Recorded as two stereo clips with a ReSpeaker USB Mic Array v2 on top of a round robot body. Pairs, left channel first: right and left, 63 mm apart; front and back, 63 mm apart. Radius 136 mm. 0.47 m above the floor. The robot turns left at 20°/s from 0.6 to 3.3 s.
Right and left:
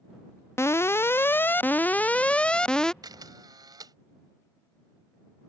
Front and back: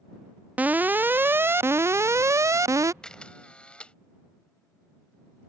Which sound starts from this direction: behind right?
An alarm, at 0.6 s.